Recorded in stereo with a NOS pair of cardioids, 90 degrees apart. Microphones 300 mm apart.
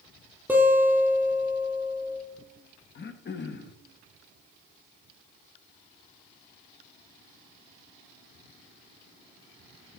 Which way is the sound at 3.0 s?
35° left.